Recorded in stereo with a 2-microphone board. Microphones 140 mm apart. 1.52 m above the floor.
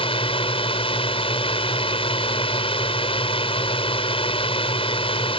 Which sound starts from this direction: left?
A drone, at 0.0 s.